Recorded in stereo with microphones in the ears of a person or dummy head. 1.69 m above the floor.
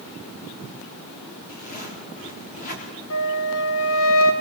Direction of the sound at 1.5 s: 45° left (ahead or behind).